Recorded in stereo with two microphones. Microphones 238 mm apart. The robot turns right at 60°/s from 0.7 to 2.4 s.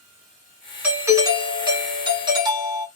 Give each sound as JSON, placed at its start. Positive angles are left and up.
{"t": 0.8, "sound": "a doorbell", "side_deg": -10, "distance_m": 1.5}